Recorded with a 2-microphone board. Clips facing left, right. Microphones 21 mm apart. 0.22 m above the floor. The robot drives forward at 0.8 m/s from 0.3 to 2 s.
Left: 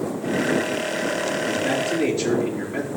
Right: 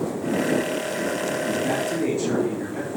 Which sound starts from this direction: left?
A man speaking, at 1.5 s.